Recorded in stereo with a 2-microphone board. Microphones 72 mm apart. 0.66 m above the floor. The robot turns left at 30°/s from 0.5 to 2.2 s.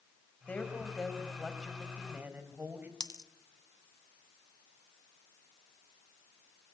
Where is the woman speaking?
20° left, 4 m; by 2.9 s 30° right, 4 m.